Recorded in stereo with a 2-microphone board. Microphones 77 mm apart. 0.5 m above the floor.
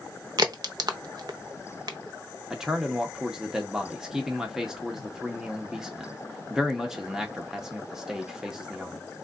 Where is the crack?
55° right (ahead or behind), 0.6 m.